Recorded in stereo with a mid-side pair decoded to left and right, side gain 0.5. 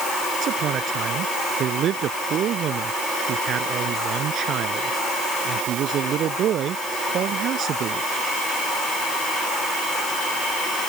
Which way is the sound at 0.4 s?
60° right.